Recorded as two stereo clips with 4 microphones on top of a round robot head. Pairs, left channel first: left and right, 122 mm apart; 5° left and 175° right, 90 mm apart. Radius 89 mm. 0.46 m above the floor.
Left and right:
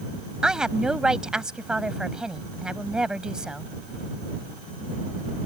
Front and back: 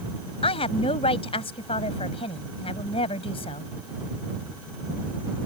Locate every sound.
0.4 s a woman speaking: 5° right